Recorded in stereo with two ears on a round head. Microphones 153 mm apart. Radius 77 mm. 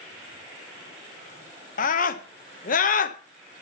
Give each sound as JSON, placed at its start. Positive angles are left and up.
{"t": 1.8, "sound": "a scream", "side_deg": 50, "distance_m": 1.1}